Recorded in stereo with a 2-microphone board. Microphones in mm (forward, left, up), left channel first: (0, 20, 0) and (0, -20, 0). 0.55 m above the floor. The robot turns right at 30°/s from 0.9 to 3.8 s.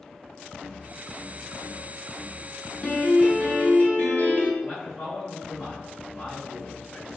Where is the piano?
20° left (ahead or behind), 1.0 m; by 4.5 s 40° left (ahead or behind), 1.0 m.